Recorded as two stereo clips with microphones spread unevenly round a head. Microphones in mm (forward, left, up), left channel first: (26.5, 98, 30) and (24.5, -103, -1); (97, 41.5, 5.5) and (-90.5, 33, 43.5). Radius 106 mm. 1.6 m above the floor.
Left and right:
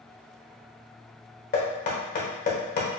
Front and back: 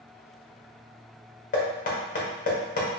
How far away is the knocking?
About 1.1 m.